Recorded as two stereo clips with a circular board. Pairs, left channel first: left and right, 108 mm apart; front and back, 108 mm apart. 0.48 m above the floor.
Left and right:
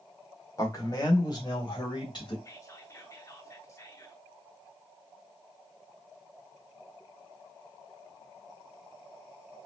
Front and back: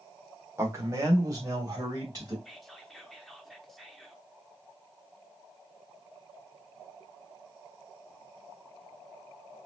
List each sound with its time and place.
0.6 s a man speaking: 130° left, 1.5 m
2.5 s whispering: 85° left, 0.8 m